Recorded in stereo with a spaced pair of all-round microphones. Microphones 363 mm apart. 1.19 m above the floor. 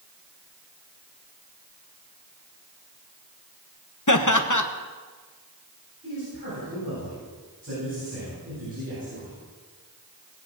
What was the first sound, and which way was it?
Laughter, 55° left (ahead or behind).